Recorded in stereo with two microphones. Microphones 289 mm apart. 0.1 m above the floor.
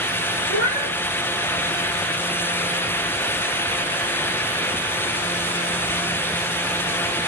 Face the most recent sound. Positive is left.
turn(degrees=25)  # may be behind; listen again after turning